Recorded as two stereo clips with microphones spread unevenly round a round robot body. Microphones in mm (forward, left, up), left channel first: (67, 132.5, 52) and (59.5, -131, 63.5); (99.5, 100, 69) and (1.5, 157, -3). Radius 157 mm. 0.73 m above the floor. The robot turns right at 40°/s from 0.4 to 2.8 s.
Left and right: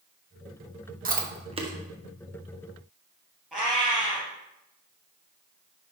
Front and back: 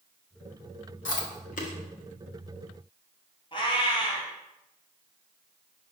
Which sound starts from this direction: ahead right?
Chewing, at 1.1 s.